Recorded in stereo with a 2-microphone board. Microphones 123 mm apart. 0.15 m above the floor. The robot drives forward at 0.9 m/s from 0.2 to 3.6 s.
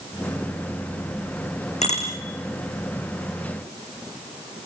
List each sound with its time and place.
1.8 s a bicycle bell: 70° left (ahead or behind), 7 m